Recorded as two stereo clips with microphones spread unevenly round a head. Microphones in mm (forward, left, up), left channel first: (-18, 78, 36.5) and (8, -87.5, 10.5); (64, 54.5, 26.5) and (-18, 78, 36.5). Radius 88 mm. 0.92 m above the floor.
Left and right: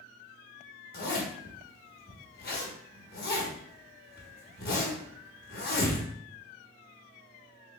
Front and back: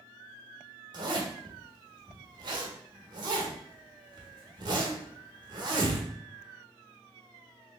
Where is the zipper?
130° left, 1.0 m.